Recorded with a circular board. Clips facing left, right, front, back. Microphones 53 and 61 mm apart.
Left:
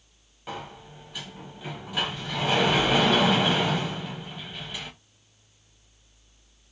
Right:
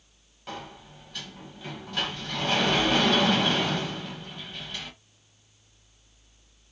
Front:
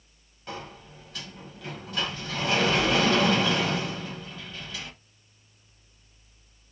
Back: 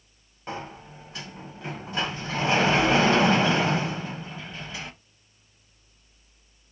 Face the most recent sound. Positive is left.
turn(degrees=160)